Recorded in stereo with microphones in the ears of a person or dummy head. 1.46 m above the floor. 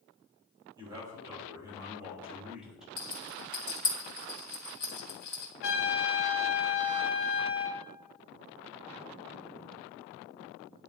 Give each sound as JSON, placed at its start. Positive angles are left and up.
{"t": 0.8, "sound": "a man speaking", "side_deg": -25, "distance_m": 3.5}
{"t": 3.0, "sound": "a rattle", "side_deg": 50, "distance_m": 1.6}
{"t": 5.6, "sound": "a trumpet", "side_deg": 65, "distance_m": 1.7}